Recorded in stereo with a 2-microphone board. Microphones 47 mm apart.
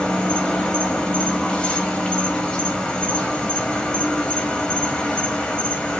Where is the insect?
15° left (ahead or behind), 1.0 m.